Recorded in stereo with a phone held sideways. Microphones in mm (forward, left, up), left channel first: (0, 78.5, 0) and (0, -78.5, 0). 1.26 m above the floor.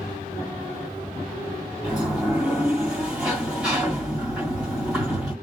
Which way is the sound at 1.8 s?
5° right (ahead or behind).